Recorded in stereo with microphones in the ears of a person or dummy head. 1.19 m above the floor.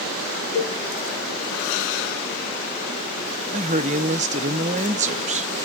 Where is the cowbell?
60° left (ahead or behind), 4 m.